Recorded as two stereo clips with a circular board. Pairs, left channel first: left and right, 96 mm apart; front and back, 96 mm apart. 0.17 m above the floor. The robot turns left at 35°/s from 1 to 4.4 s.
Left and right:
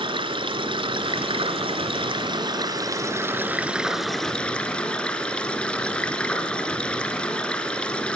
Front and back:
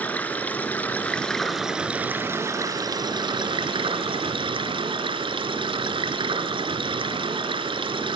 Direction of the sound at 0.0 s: 70° right.